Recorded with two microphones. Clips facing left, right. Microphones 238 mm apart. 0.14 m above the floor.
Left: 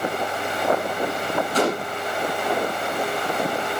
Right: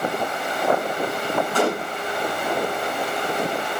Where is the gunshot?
35° left (ahead or behind), 4 m.